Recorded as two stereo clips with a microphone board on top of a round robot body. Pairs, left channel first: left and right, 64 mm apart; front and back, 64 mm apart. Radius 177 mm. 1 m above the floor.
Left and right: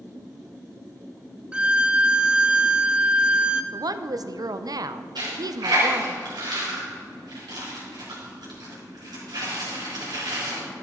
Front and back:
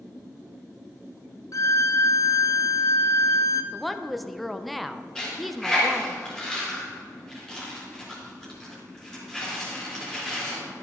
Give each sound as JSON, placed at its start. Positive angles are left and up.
{"t": 1.5, "sound": "a violin", "azimuth_deg": -20, "distance_m": 0.7}
{"t": 3.7, "sound": "a woman speaking", "azimuth_deg": -90, "distance_m": 0.6}
{"t": 5.2, "sound": "a dropped coin", "azimuth_deg": -80, "distance_m": 3.0}